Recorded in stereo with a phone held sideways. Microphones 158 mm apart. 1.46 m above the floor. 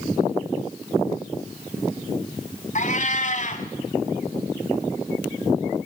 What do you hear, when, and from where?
2.8 s a cat meowing: 50° left (ahead or behind), 2 m